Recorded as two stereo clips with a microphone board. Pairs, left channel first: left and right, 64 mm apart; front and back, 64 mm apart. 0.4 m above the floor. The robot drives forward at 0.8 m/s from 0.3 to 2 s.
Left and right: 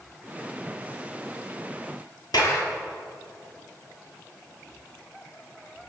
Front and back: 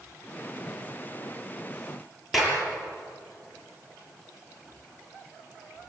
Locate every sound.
2.3 s a clap: 90° left, 7.5 m